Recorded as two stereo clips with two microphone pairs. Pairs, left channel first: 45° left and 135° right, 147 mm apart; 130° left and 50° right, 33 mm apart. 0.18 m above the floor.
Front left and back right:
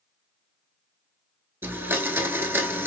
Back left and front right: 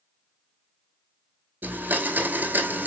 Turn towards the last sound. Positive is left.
turn(degrees=-65)